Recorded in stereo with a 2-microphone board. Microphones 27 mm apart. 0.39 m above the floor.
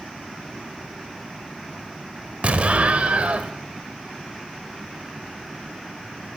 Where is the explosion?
50° right (ahead or behind), 0.9 m.